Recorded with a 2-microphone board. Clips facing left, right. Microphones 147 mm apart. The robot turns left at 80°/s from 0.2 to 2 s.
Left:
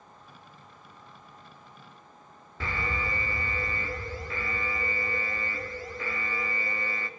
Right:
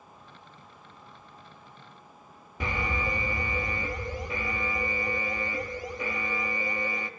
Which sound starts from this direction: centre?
An alarm, at 2.6 s.